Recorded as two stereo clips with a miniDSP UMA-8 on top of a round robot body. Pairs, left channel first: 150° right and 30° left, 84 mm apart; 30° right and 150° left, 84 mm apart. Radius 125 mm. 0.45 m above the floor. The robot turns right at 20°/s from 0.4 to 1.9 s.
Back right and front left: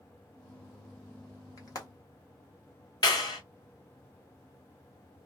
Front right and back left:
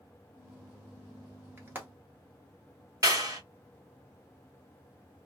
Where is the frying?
160° right, 1.7 m; by 1.9 s 150° right, 1.7 m.